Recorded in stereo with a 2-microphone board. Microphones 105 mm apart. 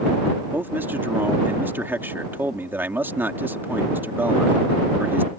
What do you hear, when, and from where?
0.5 s a man speaking: 20° right (ahead or behind)